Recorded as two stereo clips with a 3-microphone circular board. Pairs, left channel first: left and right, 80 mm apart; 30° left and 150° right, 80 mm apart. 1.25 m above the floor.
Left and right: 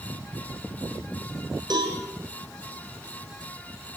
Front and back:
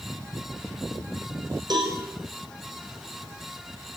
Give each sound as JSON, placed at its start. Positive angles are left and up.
{"t": 1.7, "sound": "a cowbell", "azimuth_deg": -120, "distance_m": 7.0}